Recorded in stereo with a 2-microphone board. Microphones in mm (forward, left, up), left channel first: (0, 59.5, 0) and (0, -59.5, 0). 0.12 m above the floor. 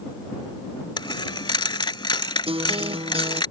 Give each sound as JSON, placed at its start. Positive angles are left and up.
{"t": 1.0, "sound": "a dropped coin", "side_deg": 40}
{"t": 2.5, "sound": "a guitar", "side_deg": -50}